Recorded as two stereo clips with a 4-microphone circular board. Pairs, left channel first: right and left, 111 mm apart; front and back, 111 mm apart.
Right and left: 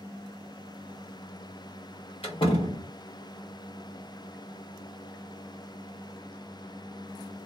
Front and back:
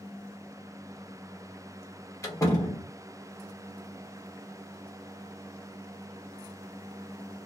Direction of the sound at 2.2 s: 60° right.